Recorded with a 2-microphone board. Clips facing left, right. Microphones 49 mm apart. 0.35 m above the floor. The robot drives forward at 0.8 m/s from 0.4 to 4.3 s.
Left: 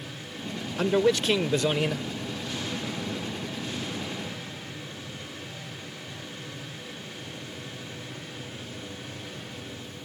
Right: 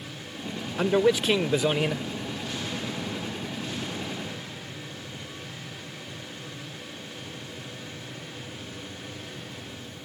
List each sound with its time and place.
0.8 s a man speaking: 10° right (ahead or behind); by 2.1 s 5° right (ahead or behind)